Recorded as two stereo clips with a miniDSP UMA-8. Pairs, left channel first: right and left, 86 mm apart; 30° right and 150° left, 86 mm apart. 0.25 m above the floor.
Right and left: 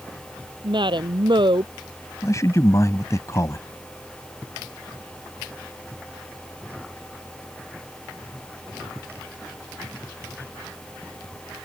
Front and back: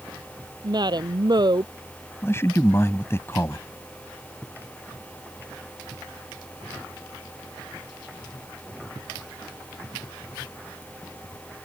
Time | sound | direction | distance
0.6 | a woman speaking | 115° left | ?
2.2 | a man speaking | 70° right | ?